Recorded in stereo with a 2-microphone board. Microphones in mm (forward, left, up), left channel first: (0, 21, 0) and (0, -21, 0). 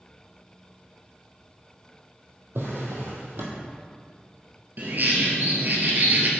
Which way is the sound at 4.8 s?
50° right (ahead or behind).